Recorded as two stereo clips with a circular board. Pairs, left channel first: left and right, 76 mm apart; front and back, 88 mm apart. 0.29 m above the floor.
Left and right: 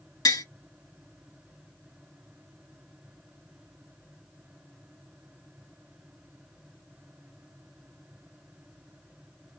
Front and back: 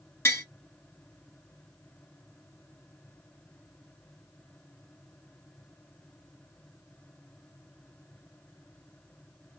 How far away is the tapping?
About 1.0 m.